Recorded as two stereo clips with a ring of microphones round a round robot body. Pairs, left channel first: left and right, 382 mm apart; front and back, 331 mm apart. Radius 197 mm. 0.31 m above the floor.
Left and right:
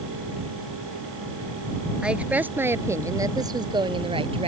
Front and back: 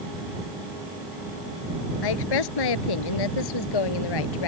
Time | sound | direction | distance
2.0 | a woman speaking | straight ahead | ?